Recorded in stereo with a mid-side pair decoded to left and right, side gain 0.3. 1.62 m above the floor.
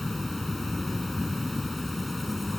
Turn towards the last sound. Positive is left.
turn(degrees=15)